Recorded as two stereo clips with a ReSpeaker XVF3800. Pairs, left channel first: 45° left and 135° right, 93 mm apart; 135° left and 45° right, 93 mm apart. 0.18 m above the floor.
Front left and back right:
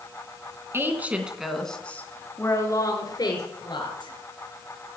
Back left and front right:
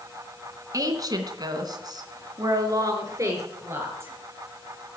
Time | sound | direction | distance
0.7 | a woman speaking | 80° right | 2.5 m